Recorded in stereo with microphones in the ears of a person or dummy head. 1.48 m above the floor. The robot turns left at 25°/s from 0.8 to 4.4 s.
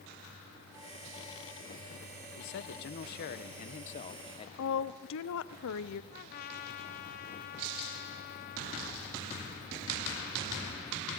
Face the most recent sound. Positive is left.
turn(degrees=45)  # may be behind; listen again after turning